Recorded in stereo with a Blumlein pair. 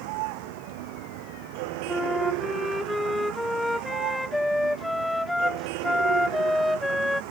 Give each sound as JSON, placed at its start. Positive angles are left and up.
{"t": 0.0, "sound": "a vehicle", "azimuth_deg": -45}
{"t": 1.9, "sound": "a flute", "azimuth_deg": 5}